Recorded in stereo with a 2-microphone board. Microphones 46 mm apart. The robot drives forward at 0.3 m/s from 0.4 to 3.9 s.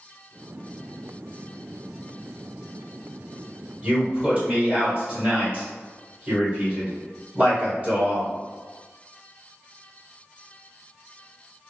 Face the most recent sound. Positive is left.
turn(degrees=-25)  # may be behind; listen again after turning